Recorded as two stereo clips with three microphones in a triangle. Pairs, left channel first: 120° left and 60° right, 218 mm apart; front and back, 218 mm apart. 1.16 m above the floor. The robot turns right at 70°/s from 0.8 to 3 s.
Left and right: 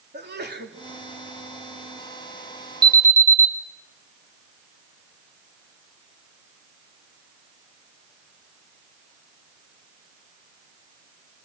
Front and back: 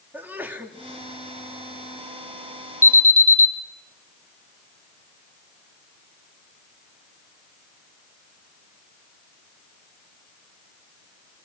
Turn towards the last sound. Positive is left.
turn(degrees=10)